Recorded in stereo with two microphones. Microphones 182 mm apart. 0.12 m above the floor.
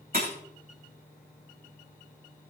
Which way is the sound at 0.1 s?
55° right (ahead or behind).